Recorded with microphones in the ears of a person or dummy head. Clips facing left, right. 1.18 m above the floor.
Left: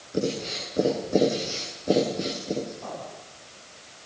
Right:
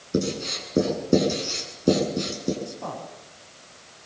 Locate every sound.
0.1 s writing: 70° right (ahead or behind), 8.5 m
2.6 s a man speaking: 85° right, 8 m